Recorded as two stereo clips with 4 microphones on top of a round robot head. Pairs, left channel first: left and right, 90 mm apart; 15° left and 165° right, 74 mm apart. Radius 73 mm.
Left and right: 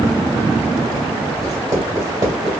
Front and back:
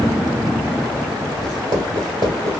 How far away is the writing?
About 2.5 m.